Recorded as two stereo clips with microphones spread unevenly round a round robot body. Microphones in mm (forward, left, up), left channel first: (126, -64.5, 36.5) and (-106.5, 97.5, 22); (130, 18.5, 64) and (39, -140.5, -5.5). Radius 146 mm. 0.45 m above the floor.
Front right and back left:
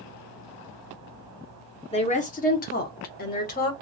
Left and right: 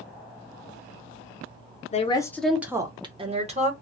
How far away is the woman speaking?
About 0.7 m.